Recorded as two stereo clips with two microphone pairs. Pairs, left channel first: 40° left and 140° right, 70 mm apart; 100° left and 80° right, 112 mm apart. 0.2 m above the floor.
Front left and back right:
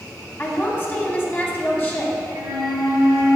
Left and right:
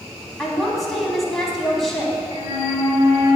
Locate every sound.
0.4 s a woman speaking: 10° left, 1.2 m
2.3 s a flute: 135° right, 1.9 m